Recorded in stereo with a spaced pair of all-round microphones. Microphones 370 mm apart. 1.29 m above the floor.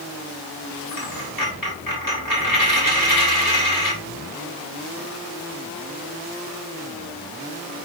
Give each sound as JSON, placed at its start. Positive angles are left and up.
{"t": 0.9, "sound": "a dropped coin", "side_deg": 55, "distance_m": 2.5}